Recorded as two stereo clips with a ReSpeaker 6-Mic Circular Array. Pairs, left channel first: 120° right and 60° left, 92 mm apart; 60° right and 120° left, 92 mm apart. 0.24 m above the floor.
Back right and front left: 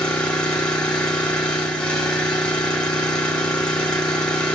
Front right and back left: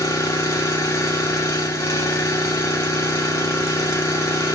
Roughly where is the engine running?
Ahead right.